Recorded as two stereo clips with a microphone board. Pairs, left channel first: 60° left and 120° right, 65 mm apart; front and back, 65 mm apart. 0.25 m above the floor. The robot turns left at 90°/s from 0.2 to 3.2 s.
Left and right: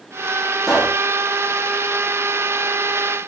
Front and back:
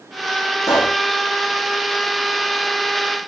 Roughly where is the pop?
Ahead.